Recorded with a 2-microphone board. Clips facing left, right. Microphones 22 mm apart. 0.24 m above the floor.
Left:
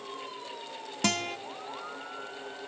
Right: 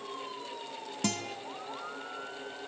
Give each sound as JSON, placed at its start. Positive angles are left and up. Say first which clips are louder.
{"t": 1.0, "sound": "a guitar", "louder": "left 5 dB", "side_deg": 30, "distance_m": 0.6}